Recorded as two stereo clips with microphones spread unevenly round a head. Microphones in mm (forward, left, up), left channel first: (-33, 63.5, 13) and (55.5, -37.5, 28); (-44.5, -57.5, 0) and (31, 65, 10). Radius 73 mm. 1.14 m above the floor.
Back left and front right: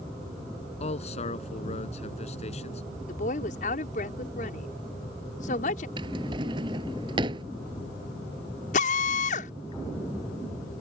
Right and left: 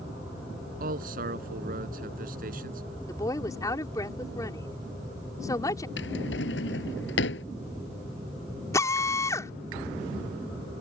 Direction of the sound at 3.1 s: 170° left.